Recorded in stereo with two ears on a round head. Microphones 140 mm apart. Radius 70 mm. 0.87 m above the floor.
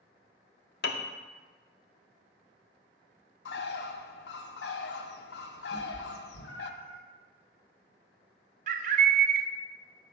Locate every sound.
0.8 s a piano: 65° left (ahead or behind), 0.6 m
3.5 s a bird: 75° left (ahead or behind), 0.5 m
5.7 s a cat meowing: 70° left (ahead or behind), 2.5 m
8.7 s a bird: 50° right (ahead or behind), 0.5 m